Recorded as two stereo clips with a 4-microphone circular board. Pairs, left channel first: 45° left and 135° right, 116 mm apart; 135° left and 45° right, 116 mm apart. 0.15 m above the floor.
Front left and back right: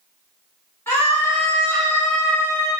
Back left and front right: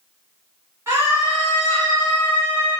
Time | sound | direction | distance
0.9 | a scream | 5° right | 1.5 m